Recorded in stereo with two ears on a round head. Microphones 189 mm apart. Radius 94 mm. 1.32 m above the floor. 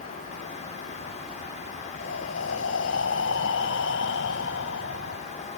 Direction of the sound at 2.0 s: 65° left (ahead or behind).